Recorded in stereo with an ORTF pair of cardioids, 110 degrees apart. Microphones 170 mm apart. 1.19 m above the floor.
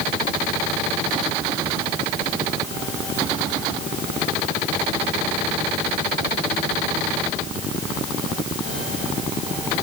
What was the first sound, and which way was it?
Only background noise.